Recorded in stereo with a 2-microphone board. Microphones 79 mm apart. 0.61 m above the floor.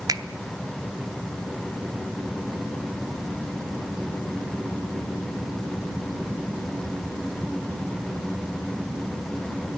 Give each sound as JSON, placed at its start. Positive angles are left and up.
{"t": 0.1, "sound": "a finger snap", "side_deg": -50, "distance_m": 0.7}